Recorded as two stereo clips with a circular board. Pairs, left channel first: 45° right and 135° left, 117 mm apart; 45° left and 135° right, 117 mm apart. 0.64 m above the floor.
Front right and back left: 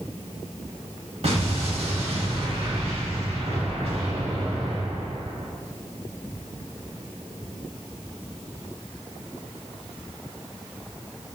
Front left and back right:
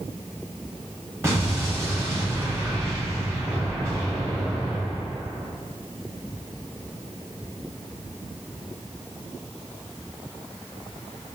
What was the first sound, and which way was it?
An explosion, 160° left.